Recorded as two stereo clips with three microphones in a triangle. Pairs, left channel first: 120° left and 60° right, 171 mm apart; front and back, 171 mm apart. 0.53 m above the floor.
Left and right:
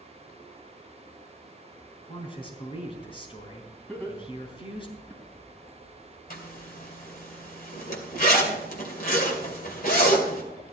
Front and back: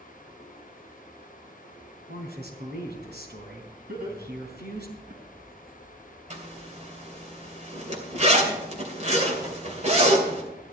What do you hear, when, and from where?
2.1 s a man speaking: straight behind, 4 m
3.9 s laughter: 160° right, 5 m
6.3 s a zipper: 140° left, 2.5 m